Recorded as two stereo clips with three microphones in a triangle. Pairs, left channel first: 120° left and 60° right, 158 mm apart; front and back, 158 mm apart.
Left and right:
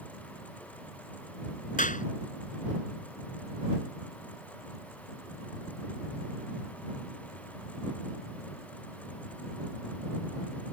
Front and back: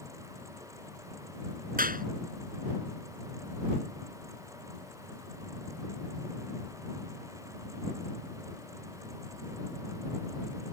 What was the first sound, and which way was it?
A clap, 155° left.